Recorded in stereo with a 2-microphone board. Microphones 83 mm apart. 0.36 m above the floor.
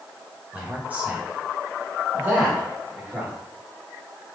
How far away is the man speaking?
About 1.3 m.